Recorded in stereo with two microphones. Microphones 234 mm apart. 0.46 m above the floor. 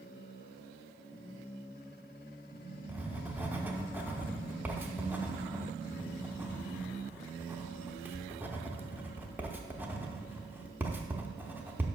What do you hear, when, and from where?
2.9 s writing: 10° right (ahead or behind), 0.7 m